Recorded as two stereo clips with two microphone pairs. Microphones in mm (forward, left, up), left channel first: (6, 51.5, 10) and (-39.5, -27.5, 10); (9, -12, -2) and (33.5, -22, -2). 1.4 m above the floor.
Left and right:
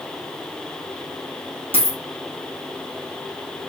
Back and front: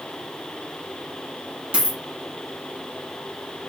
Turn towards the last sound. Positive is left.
turn(degrees=-60)